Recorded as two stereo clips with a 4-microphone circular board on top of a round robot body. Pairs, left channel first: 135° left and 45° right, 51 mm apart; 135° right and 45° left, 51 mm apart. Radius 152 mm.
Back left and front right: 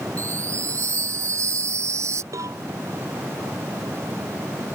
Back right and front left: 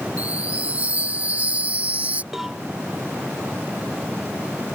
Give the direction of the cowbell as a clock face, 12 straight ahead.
1 o'clock.